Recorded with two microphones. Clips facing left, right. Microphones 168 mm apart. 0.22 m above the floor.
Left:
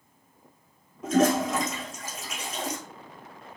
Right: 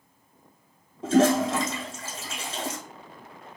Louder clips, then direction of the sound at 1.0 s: Right 2 dB; 30° right (ahead or behind).